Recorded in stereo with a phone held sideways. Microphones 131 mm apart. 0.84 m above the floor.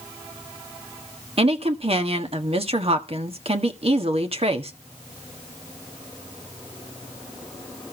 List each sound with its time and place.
1.4 s a woman speaking: 50° right (ahead or behind), 1.6 m